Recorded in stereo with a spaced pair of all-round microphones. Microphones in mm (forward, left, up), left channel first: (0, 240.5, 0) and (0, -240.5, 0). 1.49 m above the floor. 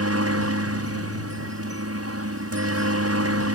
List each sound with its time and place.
0.0 s a helicopter: 30° right (ahead or behind)